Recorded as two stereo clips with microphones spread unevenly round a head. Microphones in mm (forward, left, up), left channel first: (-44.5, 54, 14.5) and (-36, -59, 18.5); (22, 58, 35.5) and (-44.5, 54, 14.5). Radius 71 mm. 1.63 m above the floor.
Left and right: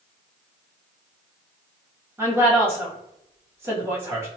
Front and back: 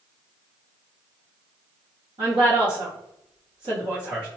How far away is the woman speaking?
About 1.3 m.